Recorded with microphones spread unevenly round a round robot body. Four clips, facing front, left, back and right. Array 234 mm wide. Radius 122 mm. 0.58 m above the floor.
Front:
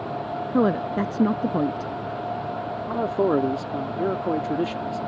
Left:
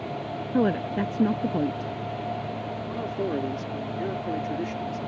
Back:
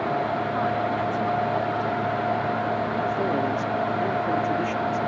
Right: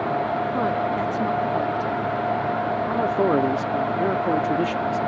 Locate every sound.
0.5 s a woman speaking: 30° left
2.9 s a man speaking: 50° right